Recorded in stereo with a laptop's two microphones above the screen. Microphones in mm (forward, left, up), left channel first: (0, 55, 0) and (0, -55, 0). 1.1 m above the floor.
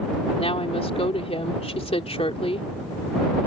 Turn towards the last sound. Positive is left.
turn(degrees=55)  # may be behind; listen again after turning